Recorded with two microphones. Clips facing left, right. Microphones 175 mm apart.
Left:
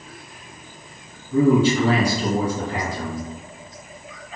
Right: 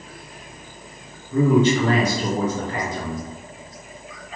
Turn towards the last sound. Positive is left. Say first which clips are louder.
# left 1 dB
turn(degrees=10)  # may be behind; listen again after turning